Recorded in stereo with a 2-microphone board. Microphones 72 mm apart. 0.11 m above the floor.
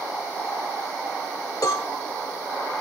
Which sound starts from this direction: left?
A cowbell, at 1.6 s.